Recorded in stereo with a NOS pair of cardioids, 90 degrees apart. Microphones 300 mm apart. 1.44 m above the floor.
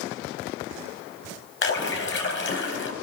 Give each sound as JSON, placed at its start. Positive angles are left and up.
{"t": 1.6, "sound": "a splash", "azimuth_deg": 40, "distance_m": 3.5}